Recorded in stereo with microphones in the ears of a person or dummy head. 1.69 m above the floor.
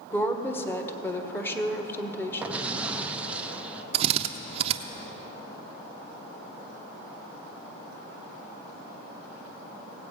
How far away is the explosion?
About 0.5 m.